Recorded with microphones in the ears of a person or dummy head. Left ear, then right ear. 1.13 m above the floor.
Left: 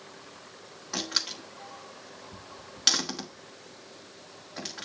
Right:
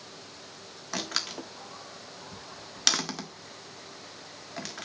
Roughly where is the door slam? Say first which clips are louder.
Left 2 dB; right.